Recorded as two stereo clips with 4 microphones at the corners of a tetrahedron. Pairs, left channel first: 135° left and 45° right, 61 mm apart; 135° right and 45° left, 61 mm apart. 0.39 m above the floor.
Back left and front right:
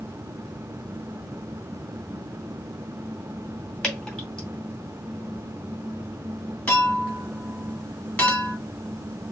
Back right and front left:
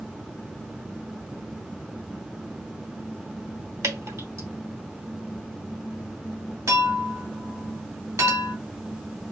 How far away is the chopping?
I don't hear chopping.